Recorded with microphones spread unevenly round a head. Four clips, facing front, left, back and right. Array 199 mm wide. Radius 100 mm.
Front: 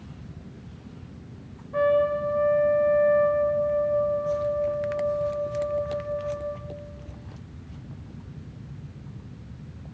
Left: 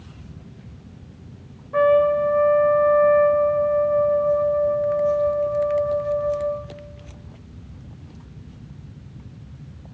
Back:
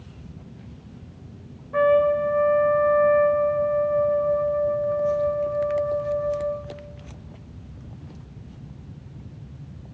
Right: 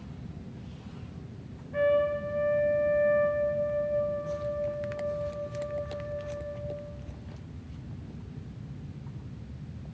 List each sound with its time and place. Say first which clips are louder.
1.7 s a trumpet: left 9 dB, back 4 dB; 75° left, 2.5 m